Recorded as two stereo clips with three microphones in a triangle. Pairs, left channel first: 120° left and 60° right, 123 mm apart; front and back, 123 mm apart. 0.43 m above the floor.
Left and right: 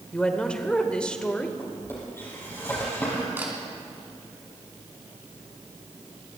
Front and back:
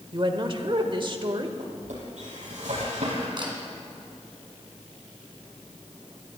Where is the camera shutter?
135° right, 3 m.